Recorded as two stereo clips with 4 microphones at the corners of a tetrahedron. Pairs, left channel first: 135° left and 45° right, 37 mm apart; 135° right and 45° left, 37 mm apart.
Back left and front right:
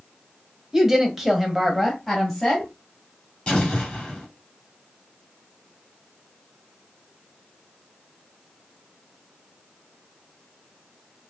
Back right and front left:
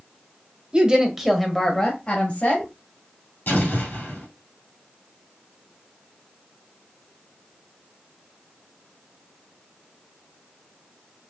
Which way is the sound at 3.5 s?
160° right.